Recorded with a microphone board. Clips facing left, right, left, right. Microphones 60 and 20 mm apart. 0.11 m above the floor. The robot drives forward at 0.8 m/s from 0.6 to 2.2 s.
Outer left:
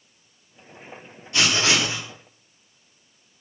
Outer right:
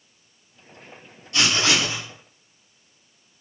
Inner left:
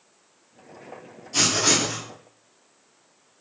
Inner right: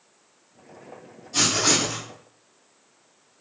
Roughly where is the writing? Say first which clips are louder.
Even, even; left.